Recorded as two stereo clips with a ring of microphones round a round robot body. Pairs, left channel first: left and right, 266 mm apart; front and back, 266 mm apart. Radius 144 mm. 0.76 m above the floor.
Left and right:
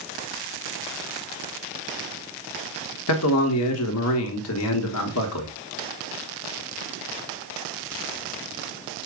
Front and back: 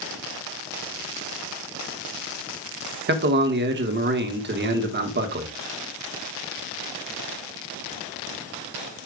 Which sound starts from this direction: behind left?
A man speaking, at 3.1 s.